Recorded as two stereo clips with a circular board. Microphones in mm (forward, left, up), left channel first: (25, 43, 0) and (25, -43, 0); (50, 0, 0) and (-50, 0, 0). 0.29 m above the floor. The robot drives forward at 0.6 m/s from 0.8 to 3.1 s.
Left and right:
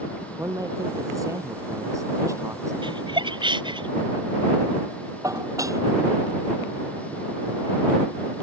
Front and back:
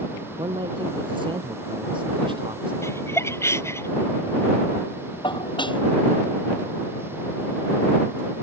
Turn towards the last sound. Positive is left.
turn(degrees=-40)